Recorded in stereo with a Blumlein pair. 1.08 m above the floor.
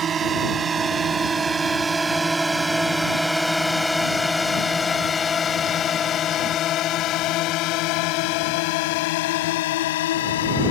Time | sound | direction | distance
0.0 | a drone | 25° right | ?